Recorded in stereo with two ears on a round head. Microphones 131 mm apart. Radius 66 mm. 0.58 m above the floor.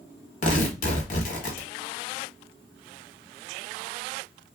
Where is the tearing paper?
55° left (ahead or behind), 1.0 m.